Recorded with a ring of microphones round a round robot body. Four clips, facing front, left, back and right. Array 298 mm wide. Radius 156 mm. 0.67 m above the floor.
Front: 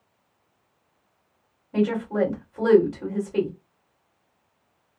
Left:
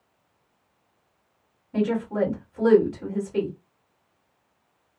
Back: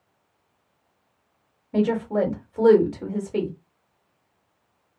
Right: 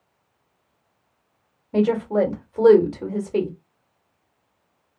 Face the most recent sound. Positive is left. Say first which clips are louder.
# right 5 dB, back 1 dB
turn(degrees=-110)